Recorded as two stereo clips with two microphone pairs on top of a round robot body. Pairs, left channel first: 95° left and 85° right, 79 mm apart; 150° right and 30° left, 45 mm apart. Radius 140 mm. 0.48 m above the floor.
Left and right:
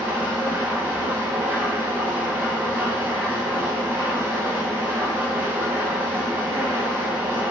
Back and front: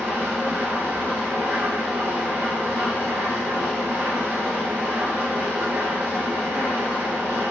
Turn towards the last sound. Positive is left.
turn(degrees=-15)